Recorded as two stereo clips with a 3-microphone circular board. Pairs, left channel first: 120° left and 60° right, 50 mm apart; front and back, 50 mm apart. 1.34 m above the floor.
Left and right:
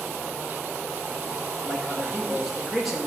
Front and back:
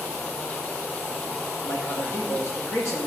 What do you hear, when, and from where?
1.6 s a man speaking: 25° left, 1.4 m